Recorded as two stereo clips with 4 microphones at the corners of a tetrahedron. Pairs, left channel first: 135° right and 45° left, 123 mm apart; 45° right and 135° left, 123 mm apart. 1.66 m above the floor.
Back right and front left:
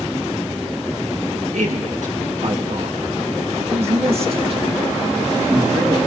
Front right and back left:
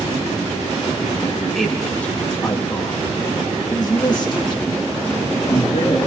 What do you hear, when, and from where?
1.5 s a man speaking: 40° left, 3 m; by 6.0 s 5° right, 4.5 m